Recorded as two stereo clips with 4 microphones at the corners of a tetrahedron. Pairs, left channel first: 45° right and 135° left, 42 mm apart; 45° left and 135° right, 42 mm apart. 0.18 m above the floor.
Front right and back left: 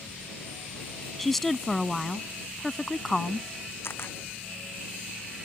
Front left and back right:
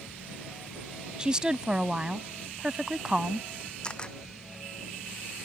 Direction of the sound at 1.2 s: 120° right.